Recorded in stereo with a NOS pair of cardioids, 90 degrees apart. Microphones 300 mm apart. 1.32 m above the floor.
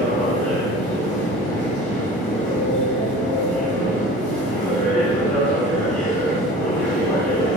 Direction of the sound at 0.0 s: 5° left.